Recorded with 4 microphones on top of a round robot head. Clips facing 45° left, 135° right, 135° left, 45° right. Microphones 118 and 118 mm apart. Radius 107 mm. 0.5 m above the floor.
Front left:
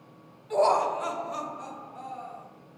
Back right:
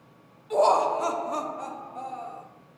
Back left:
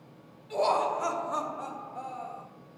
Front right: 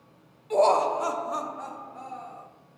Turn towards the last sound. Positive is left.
turn(degrees=-165)